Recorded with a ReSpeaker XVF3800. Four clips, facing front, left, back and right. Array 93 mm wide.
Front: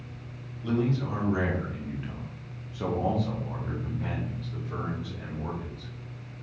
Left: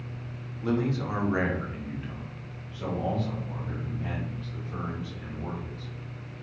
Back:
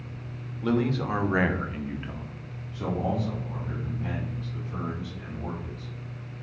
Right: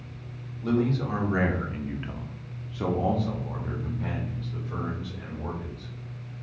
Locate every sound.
0.6 s a man speaking: 160° left, 1.2 m; by 5.9 s 50° right, 3 m